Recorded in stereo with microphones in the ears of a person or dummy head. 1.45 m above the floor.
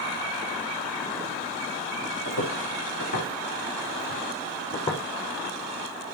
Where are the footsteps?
65° left (ahead or behind), 5 m; by 5.0 s 15° left (ahead or behind), 2.5 m.